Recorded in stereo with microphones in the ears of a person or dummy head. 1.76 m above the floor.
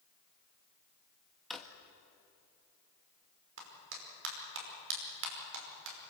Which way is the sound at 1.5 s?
Centre (ahead or behind).